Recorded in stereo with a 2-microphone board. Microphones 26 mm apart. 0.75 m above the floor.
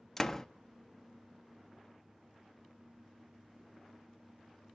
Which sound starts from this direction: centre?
A door slam, at 0.2 s.